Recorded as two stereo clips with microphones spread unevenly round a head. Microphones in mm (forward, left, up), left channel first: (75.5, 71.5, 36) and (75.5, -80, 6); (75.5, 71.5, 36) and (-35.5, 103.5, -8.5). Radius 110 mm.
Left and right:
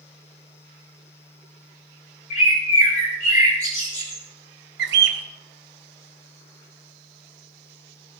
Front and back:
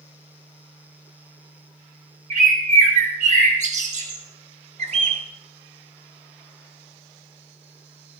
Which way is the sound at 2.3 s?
145° left.